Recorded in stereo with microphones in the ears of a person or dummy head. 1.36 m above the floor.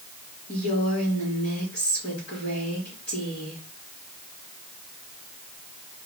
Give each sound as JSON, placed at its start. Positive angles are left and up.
{"t": 0.5, "sound": "a woman speaking", "side_deg": 45, "distance_m": 3.5}